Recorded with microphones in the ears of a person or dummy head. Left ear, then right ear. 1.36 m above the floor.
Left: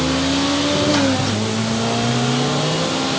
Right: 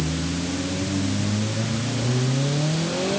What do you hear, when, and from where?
Only background noise.